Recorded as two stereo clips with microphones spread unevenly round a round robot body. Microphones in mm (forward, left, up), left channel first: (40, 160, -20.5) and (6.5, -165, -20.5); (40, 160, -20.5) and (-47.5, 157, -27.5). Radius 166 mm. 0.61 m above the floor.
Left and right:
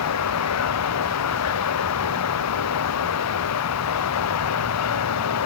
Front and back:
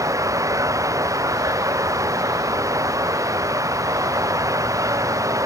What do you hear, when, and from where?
0.0 s running water: 130° left